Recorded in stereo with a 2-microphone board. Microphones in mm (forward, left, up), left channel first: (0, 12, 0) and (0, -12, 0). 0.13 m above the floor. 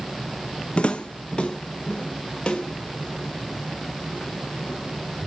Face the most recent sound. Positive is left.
turn(degrees=40)  # may be behind; listen again after turning